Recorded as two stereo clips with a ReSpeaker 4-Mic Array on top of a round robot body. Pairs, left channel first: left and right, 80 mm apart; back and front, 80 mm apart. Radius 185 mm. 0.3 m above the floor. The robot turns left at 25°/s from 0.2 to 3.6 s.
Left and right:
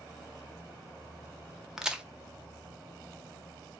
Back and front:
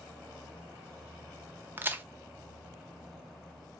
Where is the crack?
15° right, 0.9 m; by 2.0 s 25° right, 0.9 m.